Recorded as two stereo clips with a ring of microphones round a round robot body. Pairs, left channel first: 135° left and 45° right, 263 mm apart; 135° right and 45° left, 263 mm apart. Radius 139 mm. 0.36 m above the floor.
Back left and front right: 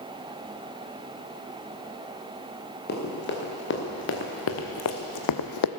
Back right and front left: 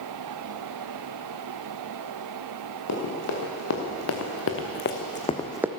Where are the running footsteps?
170° right, 4 m; by 5.7 s 125° left, 0.9 m.